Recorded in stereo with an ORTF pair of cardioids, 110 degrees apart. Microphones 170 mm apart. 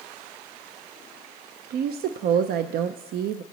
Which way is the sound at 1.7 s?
65° right.